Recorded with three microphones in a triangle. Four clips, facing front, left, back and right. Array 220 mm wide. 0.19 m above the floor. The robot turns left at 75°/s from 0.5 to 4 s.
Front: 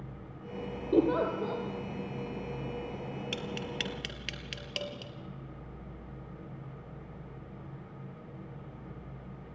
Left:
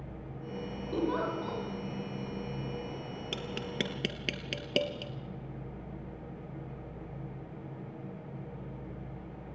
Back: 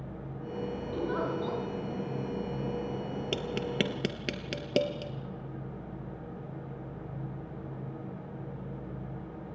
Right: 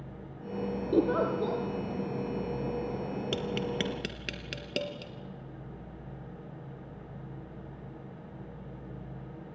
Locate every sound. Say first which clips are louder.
0.9 s a giggle: right 5 dB, front 7 dB; 30° right, 4.5 m; by 1.6 s 85° right, 4.5 m
3.3 s tapping: right 3 dB, back 6 dB; 145° right, 1.5 m; by 5.1 s 160° left, 1.5 m